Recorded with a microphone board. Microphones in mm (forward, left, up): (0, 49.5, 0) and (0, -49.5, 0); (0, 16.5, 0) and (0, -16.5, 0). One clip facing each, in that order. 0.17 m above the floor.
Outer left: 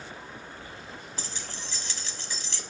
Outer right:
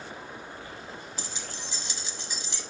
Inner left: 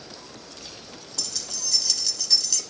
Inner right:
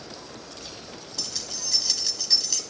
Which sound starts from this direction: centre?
Keys jangling, at 1.2 s.